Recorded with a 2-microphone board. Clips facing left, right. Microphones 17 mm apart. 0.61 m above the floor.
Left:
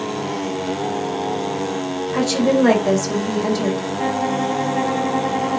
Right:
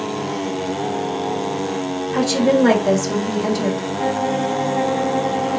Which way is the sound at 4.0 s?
20° left (ahead or behind).